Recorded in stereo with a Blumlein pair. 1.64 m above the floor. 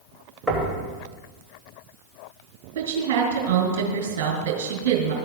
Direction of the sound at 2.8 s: 50° right.